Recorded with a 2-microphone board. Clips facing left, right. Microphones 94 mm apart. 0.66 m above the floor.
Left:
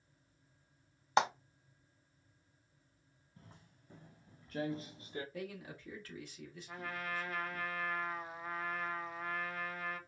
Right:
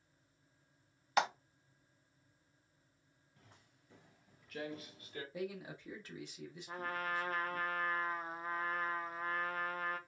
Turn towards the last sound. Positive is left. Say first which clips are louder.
# right 3 dB
turn(degrees=-45)  # may be behind; listen again after turning